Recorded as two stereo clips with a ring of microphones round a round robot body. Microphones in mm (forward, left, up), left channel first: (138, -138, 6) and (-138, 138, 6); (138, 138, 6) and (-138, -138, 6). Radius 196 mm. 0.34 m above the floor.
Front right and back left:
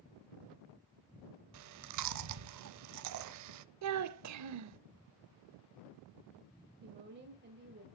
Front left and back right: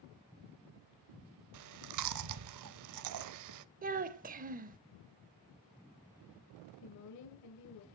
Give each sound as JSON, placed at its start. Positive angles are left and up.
{"t": 1.5, "sound": "chewing", "azimuth_deg": 180, "distance_m": 0.6}
{"t": 3.8, "sound": "a child speaking", "azimuth_deg": 165, "distance_m": 0.6}
{"t": 6.8, "sound": "a woman speaking", "azimuth_deg": 75, "distance_m": 1.3}